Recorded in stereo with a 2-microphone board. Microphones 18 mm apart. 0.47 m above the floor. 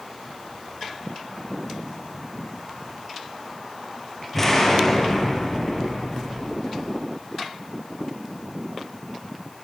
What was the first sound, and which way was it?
An explosion, 15° left (ahead or behind).